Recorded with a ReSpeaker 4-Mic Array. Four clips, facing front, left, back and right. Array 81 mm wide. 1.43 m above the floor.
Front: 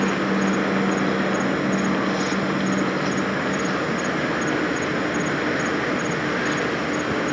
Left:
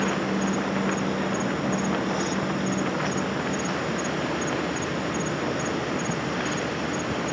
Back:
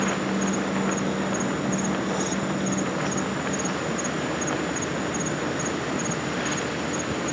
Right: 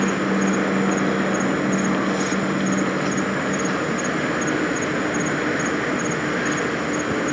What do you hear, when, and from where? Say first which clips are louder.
0.0 s an insect: right 5 dB, front 4 dB; 60° right